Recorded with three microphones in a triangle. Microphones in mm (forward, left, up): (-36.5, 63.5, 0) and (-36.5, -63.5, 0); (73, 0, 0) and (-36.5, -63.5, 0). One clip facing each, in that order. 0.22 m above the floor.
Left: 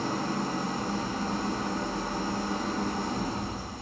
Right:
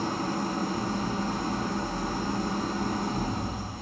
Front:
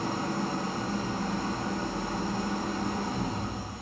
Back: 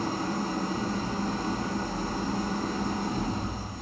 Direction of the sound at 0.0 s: 115° right.